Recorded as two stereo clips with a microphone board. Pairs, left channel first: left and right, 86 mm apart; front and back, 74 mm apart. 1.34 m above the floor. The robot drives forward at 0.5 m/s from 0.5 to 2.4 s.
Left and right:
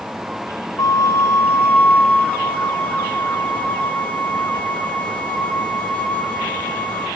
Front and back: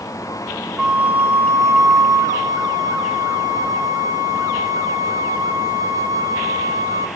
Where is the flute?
105° left, 0.6 m; by 7.1 s 160° left, 1.1 m.